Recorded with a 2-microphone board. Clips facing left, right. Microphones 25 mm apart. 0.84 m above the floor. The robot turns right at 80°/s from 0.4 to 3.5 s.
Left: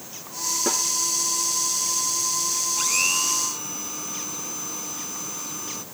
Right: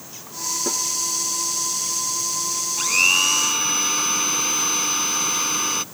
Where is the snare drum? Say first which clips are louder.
Left 1 dB; 25° left (ahead or behind); by 0.8 s 40° left (ahead or behind).